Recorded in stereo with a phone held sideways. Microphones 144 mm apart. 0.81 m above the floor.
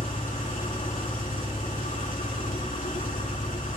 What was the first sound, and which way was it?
An engine running, 75° left (ahead or behind).